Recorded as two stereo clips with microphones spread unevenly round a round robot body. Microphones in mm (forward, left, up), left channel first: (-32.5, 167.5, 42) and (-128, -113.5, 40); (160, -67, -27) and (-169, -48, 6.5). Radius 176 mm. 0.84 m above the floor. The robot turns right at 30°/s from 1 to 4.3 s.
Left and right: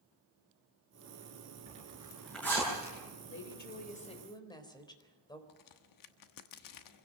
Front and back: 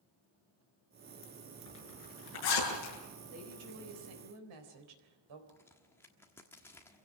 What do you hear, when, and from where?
1.7 s a zipper: 40° right, 8.5 m; by 3.0 s straight ahead, 8.5 m
3.3 s a woman speaking: 115° left, 4 m; by 5.4 s 145° left, 4 m
5.5 s a crack: 80° left, 1.3 m